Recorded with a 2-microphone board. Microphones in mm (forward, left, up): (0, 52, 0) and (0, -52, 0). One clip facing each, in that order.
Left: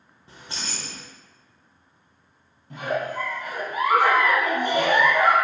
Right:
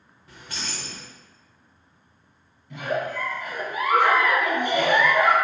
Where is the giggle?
45° left (ahead or behind), 1.1 m.